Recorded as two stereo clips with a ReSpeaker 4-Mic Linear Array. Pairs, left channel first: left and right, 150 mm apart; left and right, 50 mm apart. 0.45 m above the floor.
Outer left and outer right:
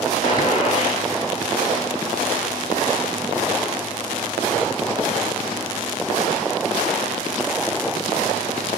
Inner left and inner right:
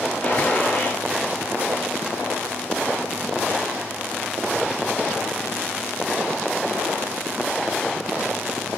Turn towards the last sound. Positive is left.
turn(degrees=30)  # may be behind; listen again after turning